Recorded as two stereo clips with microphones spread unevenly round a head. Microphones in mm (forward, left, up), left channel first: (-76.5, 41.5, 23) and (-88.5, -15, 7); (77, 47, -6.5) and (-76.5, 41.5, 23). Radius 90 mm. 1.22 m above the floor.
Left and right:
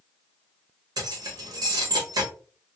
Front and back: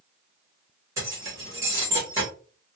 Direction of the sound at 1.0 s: 105° right.